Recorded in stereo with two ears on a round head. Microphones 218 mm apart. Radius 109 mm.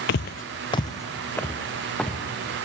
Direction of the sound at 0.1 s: 45° left (ahead or behind).